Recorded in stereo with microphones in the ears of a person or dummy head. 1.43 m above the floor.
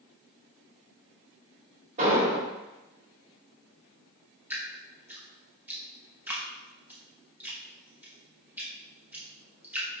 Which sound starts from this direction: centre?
Dripping, at 4.5 s.